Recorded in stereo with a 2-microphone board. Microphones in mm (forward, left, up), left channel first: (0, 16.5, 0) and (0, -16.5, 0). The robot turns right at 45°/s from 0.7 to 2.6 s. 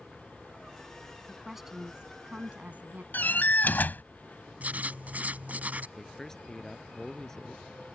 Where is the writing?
50° right (ahead or behind).